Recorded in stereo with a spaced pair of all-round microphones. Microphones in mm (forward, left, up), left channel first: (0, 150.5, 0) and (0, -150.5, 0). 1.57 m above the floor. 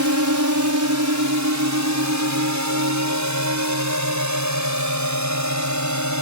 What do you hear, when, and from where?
0.0 s a drone: 70° right (ahead or behind)